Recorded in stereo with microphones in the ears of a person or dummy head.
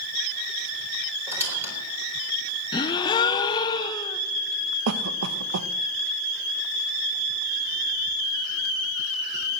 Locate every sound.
1.3 s a squeak: 15° right (ahead or behind), 4 m
2.7 s a gasp: 25° left (ahead or behind), 0.8 m
4.9 s a cough: 75° right (ahead or behind), 0.8 m